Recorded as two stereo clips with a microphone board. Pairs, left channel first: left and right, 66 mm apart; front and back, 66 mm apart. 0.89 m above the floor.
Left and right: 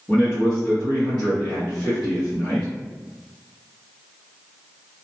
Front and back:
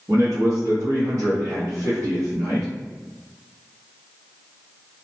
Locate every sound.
0.1 s a man speaking: 165° left, 0.9 m